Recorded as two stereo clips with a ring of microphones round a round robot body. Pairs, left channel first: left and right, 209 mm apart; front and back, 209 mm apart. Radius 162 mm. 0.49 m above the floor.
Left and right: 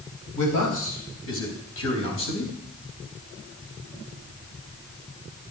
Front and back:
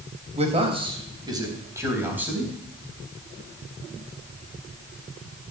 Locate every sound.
0.3 s a man speaking: 120° left, 3.5 m; by 2.5 s 95° left, 4.5 m